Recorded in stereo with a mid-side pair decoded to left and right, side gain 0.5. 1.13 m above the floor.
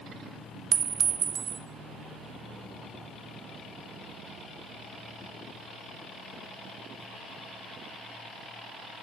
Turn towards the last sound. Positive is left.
turn(degrees=-50)